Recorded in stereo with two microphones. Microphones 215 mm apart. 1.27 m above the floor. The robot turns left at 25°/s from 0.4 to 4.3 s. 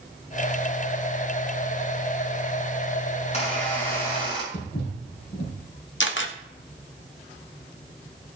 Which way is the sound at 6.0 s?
60° left (ahead or behind).